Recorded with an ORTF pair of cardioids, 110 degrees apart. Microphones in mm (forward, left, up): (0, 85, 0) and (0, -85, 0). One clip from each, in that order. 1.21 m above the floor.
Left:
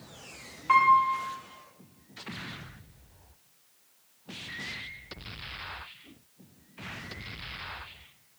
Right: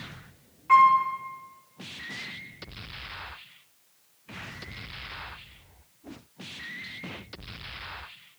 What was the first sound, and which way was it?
A piano, 35° left.